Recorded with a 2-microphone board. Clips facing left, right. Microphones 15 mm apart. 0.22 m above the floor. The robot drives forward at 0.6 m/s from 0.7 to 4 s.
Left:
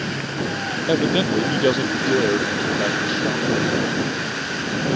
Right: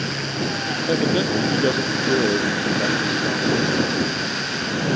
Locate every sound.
0.9 s a man speaking: 35° left (ahead or behind); by 3.8 s 25° left (ahead or behind)